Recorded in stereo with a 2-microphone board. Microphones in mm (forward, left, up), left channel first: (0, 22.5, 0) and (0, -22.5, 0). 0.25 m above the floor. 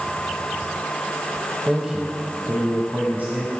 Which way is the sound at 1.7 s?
10° right (ahead or behind).